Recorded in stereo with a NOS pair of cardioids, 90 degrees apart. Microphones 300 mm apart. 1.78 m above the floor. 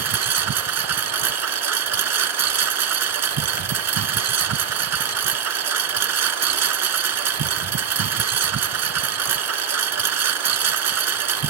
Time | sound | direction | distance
0.0 | a lawn mower | 60° right | ?